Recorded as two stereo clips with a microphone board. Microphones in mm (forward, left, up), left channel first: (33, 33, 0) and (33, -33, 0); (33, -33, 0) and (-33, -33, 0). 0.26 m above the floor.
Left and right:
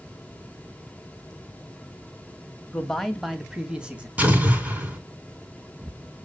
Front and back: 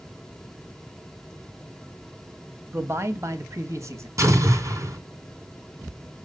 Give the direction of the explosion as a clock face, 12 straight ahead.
5 o'clock.